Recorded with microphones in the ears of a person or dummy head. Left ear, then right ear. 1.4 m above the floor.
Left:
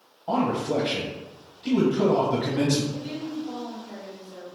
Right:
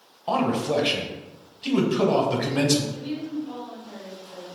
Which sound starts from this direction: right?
A man speaking, at 0.3 s.